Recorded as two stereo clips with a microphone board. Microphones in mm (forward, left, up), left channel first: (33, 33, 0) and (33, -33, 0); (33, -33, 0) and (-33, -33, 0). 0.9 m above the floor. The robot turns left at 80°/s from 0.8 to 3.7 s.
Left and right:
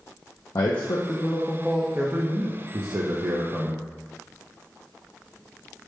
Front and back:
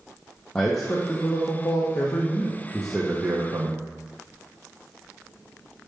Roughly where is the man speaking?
Left.